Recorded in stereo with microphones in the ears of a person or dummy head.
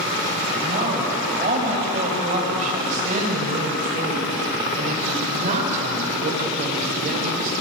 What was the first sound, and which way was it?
A woman speaking, 35° right (ahead or behind).